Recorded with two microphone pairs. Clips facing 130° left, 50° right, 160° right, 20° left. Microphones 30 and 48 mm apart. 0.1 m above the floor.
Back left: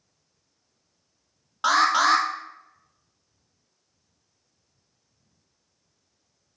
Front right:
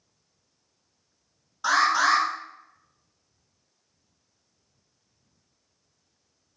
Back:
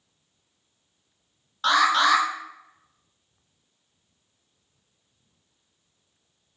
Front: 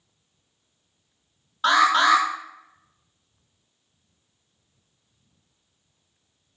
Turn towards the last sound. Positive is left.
turn(degrees=105)